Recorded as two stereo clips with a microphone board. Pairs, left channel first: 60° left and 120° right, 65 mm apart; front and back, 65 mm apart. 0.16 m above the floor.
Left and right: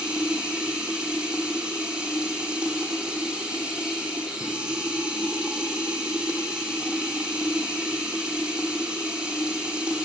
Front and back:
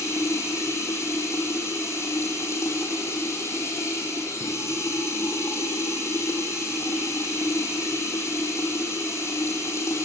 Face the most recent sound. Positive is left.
turn(degrees=-45)